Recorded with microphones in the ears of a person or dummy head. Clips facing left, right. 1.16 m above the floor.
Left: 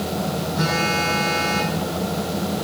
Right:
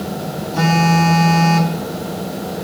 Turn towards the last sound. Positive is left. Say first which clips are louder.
# right 11 dB
turn(degrees=-70)  # may be behind; listen again after turning